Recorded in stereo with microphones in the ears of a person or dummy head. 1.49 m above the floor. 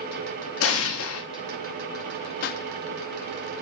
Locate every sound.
0.6 s an explosion: 85° left, 1.7 m
2.4 s a pop: 60° left (ahead or behind), 0.6 m